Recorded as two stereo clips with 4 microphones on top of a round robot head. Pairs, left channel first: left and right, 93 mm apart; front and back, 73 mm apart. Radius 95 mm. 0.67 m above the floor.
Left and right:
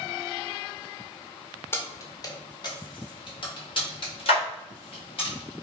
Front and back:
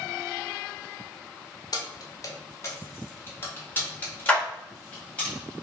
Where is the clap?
75° left, 2 m.